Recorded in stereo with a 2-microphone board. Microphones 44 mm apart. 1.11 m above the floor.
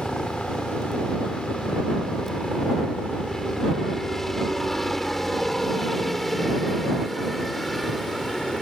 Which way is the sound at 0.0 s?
10° left (ahead or behind).